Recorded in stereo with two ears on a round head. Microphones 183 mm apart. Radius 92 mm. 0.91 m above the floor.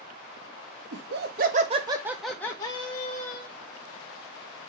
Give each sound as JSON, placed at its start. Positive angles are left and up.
{"t": 0.9, "sound": "laughter", "side_deg": -60, "distance_m": 0.9}